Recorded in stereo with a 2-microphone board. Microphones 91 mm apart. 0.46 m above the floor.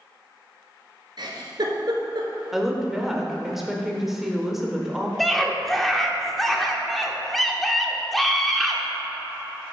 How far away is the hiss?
I don't hear a hiss.